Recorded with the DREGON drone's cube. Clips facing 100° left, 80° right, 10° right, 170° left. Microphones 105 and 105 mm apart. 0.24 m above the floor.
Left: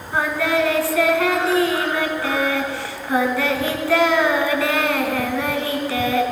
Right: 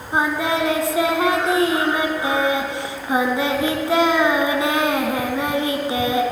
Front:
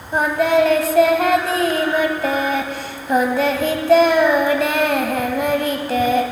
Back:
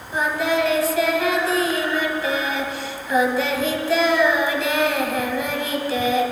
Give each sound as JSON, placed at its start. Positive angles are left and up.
{"t": 0.1, "sound": "singing", "azimuth_deg": -15, "distance_m": 1.3}